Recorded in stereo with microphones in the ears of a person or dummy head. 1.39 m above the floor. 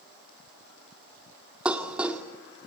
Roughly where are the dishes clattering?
Centre.